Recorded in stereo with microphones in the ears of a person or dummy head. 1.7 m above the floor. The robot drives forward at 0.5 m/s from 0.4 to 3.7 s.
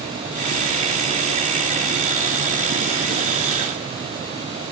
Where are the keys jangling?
No keys jangling in this recording.